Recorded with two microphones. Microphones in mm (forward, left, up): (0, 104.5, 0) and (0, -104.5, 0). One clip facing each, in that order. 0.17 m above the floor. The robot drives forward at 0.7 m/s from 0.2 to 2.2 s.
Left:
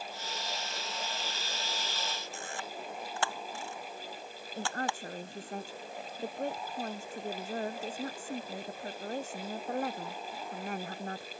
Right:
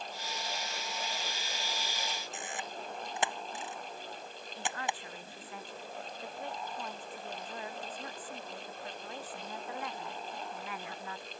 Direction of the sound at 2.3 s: 20° right (ahead or behind).